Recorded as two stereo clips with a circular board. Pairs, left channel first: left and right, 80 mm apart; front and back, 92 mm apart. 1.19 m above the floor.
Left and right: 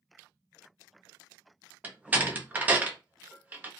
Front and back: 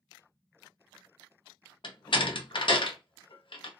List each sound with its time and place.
1.8 s a door slam: 20° right, 0.6 m